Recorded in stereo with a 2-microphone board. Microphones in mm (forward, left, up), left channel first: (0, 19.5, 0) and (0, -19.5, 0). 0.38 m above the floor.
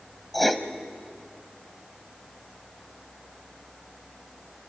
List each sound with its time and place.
0.3 s writing: 5° left (ahead or behind), 0.9 m